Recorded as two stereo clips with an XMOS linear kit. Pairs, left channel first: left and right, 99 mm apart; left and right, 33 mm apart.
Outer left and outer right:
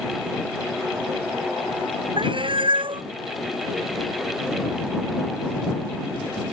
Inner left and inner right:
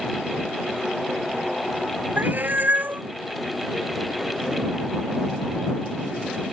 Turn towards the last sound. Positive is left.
turn(degrees=-60)  # may be behind; listen again after turning